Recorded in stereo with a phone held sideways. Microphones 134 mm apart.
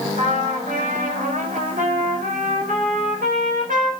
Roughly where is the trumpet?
Right.